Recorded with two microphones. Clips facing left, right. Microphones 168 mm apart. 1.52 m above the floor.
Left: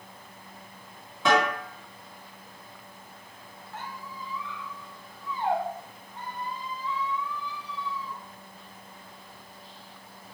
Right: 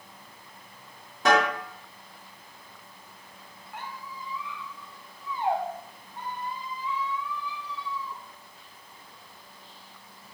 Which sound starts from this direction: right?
A snare drum, at 1.2 s.